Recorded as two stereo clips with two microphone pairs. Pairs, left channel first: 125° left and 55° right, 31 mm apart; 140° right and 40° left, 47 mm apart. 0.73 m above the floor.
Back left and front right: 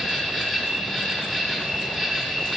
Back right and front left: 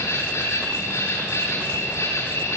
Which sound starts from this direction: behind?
An insect, at 0.0 s.